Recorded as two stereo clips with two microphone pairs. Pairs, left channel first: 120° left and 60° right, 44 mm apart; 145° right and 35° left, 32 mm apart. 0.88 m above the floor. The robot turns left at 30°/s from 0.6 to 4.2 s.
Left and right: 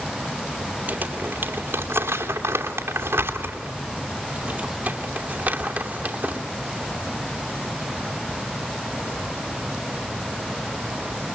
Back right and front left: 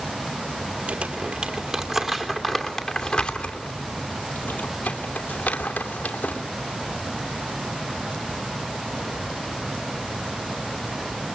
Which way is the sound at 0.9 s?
10° right.